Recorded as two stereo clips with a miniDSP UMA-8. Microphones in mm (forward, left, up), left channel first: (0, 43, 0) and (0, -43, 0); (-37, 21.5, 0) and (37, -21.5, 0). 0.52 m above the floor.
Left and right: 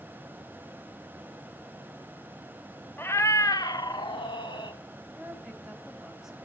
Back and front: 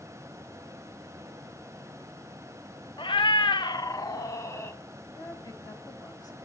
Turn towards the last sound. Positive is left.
turn(degrees=-175)